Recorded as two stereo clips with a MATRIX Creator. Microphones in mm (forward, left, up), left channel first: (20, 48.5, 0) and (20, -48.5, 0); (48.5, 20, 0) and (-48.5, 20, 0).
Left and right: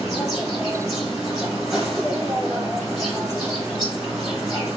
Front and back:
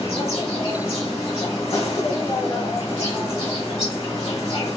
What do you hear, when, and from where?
0.0 s an insect: straight ahead, 1.7 m